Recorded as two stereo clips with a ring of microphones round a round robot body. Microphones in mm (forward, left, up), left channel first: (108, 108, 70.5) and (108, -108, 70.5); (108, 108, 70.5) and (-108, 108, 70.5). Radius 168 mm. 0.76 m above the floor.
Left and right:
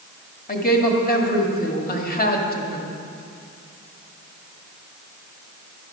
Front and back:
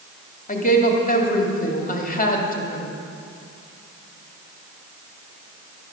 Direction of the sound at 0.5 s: 45° left.